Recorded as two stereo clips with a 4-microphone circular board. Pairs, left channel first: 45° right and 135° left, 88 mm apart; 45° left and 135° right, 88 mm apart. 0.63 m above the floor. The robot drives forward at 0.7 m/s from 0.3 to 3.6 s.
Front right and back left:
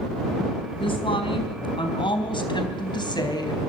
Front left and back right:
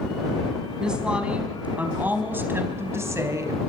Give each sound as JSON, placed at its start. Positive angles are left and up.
{"t": 0.8, "sound": "a woman speaking", "azimuth_deg": -55, "distance_m": 4.0}